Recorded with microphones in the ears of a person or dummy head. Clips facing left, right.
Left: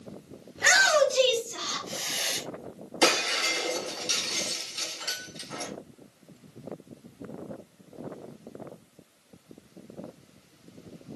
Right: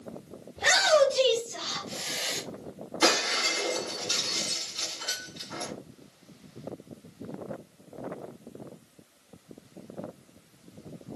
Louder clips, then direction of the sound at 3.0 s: Left 1 dB; 60° left (ahead or behind).